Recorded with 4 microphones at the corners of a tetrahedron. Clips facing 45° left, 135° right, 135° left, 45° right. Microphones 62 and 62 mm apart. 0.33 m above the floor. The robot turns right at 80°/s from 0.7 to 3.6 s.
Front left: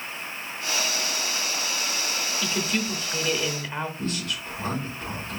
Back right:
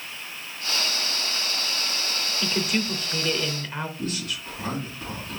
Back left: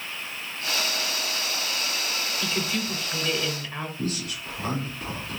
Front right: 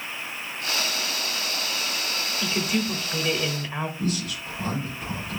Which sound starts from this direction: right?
A woman speaking, at 2.4 s.